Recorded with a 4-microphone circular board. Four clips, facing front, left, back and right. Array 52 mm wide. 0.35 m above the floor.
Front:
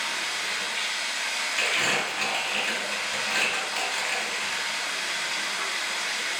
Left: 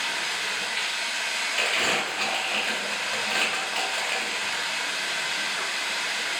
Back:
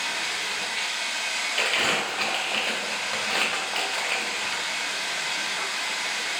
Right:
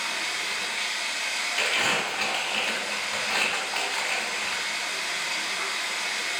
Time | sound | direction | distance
0.0 | running water | 115° left | 2 m
1.6 | crumpling | 170° left | 1.6 m